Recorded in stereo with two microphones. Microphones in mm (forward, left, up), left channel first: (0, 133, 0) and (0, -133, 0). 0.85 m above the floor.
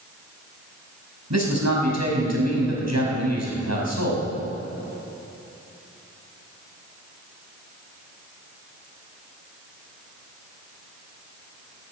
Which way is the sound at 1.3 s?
85° right.